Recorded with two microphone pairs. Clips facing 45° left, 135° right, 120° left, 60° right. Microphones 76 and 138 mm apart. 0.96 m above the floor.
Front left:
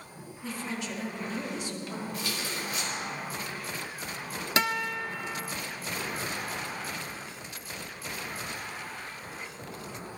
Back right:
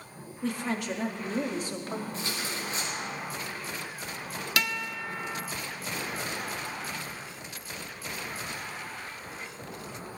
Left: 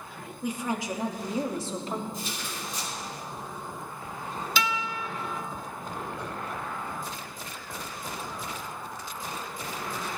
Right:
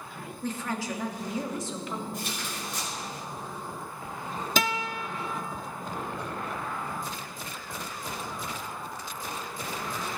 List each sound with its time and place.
0.4 s a woman speaking: 165° right, 1.8 m; by 2.0 s 170° left, 2 m
2.1 s tearing paper: 80° right, 6.5 m
4.6 s a guitar: 20° right, 0.9 m